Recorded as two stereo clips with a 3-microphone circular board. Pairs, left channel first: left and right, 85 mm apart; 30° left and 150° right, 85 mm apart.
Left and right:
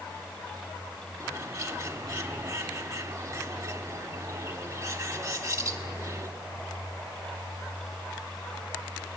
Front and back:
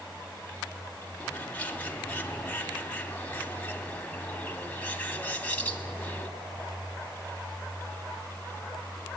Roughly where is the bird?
Ahead right.